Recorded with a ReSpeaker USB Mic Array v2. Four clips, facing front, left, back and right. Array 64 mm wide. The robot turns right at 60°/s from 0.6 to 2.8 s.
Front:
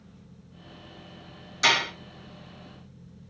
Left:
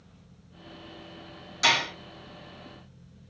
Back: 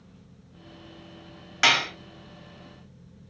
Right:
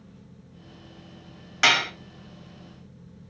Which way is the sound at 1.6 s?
135° right.